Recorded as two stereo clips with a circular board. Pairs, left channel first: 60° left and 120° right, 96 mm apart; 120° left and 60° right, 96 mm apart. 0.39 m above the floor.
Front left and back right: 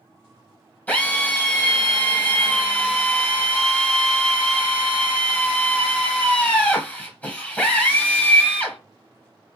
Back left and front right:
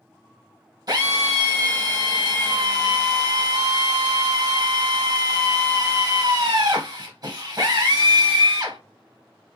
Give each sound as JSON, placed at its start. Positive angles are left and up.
{"t": 0.9, "sound": "a drill", "azimuth_deg": -15, "distance_m": 1.0}